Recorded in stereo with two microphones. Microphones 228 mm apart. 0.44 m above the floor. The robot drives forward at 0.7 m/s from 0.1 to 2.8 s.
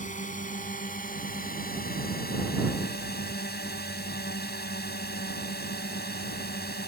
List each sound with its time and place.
0.0 s a drone: 35° left (ahead or behind); by 6.9 s 45° left (ahead or behind)